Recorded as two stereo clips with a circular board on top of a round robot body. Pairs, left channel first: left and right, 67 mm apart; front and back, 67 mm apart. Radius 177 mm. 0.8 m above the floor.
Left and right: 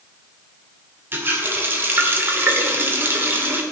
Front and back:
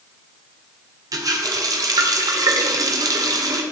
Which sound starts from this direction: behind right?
A running tap, at 1.1 s.